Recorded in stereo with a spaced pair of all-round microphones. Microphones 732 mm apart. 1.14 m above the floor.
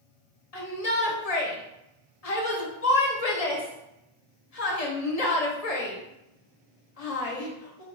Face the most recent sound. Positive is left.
turn(degrees=55)  # may be behind; listen again after turning